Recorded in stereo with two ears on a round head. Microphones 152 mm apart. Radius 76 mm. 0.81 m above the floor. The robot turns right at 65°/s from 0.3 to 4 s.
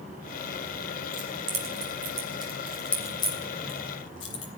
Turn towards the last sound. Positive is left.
turn(degrees=75)  # may be behind; listen again after turning